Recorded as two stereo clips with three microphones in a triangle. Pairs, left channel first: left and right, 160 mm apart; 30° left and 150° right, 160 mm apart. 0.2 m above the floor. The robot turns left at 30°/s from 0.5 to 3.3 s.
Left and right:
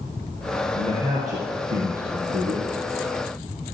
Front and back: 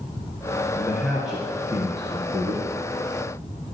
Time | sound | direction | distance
0.8 | a man speaking | 50° right | 2.5 m